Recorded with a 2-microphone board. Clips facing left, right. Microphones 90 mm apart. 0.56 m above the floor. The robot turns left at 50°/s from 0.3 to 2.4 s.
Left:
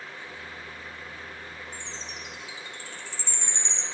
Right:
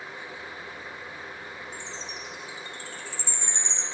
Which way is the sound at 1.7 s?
30° right (ahead or behind).